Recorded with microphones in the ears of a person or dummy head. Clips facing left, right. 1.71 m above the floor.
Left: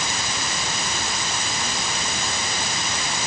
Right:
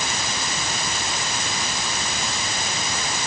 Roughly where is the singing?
I don't hear singing.